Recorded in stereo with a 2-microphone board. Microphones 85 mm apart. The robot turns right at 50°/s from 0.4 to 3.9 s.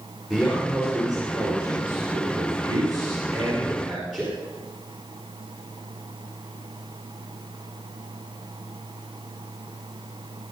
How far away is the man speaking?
About 5 m.